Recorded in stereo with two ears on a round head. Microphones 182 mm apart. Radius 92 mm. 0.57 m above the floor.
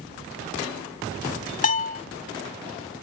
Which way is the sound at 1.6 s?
40° left (ahead or behind).